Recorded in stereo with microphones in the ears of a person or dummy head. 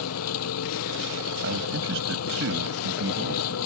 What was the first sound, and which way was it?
An engine running, 85° left.